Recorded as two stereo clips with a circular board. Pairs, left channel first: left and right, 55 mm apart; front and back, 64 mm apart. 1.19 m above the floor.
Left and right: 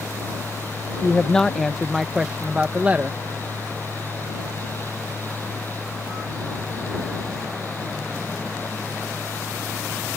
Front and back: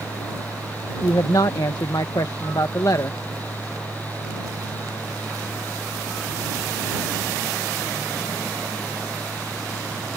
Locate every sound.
1.0 s a woman speaking: 20° left; by 3.2 s 30° right